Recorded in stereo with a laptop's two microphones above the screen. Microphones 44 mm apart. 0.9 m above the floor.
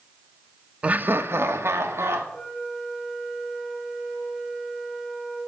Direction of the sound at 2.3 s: 15° left (ahead or behind).